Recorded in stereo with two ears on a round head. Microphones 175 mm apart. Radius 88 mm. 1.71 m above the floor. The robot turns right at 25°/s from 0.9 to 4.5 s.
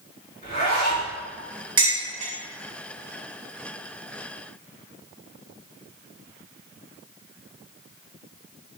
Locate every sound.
0.4 s a zipper: 40° left (ahead or behind), 1.6 m; by 1.1 s 35° left (ahead or behind), 1.6 m
1.8 s dishes clattering: 25° right (ahead or behind), 1.7 m; by 2.3 s 35° right (ahead or behind), 1.7 m